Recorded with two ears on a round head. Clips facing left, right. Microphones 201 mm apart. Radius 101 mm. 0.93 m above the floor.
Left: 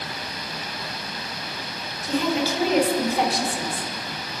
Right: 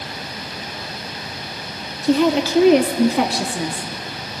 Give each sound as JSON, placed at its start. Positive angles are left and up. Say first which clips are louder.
{"t": 2.0, "sound": "a woman speaking", "louder": "right 7 dB", "side_deg": -60, "distance_m": 1.6}